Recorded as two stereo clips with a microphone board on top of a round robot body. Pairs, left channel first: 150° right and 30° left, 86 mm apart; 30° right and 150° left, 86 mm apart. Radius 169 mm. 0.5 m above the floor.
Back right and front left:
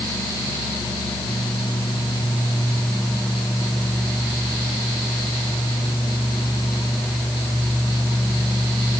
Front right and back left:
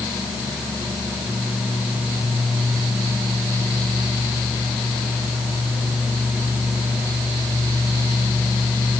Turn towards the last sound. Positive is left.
No sound to turn to.